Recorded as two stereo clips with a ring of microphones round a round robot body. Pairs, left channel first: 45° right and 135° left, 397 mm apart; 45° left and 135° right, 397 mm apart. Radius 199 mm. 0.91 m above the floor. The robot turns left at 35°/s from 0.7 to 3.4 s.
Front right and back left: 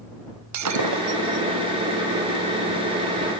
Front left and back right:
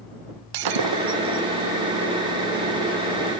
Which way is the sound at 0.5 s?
175° right.